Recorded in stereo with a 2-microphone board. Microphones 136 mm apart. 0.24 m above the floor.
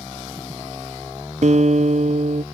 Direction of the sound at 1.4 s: 60° right (ahead or behind).